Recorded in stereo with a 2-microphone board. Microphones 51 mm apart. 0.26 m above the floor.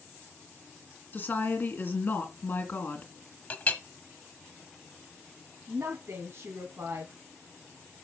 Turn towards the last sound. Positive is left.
turn(degrees=-50)  # may be behind; listen again after turning